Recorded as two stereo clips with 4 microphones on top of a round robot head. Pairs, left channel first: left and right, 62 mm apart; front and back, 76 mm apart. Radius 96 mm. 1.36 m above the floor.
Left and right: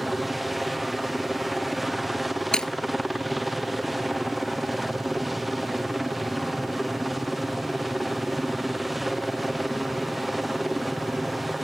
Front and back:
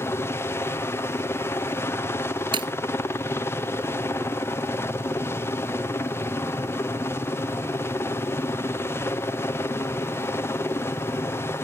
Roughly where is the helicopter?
Ahead.